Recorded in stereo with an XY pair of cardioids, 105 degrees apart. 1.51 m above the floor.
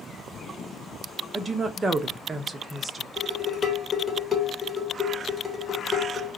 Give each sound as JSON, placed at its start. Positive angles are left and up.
{"t": 1.3, "sound": "a woman speaking", "azimuth_deg": -25, "distance_m": 0.8}
{"t": 3.2, "sound": "dishes clattering", "azimuth_deg": 20, "distance_m": 1.4}